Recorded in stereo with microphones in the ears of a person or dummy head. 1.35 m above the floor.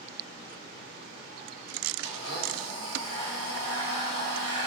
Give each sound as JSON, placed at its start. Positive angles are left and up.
{"t": 2.0, "sound": "a blender", "side_deg": -40, "distance_m": 2.5}